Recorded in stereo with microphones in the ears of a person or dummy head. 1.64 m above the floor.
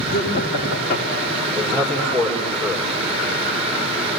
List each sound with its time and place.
0.1 s laughter: 65° left (ahead or behind), 5 m
1.6 s a man speaking: 10° left (ahead or behind), 5.5 m